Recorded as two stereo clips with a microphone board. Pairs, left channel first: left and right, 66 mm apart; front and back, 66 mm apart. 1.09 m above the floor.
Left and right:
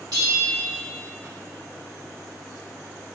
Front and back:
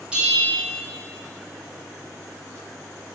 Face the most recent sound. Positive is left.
turn(degrees=-105)